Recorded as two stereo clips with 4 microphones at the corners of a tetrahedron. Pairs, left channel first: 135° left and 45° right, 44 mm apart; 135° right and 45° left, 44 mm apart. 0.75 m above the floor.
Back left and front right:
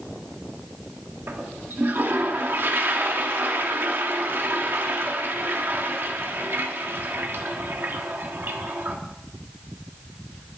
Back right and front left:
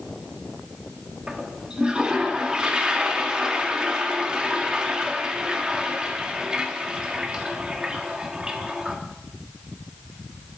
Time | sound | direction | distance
1.3 | a toilet flushing | 20° right | 1.3 m